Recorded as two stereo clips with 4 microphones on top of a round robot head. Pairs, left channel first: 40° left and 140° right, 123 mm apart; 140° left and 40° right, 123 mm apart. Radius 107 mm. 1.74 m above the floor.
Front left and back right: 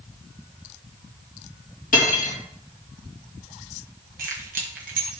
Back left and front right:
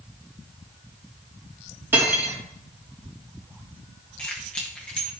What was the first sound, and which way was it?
Cutlery clinking, 35° left.